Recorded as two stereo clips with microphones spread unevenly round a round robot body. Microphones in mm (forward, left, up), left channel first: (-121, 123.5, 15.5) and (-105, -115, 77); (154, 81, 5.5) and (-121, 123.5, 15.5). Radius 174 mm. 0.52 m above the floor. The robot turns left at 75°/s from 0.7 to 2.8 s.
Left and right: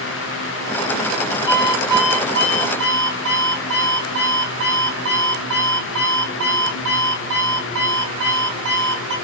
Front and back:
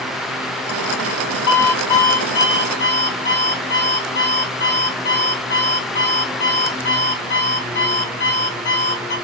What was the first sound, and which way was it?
An alarm clock, 45° left.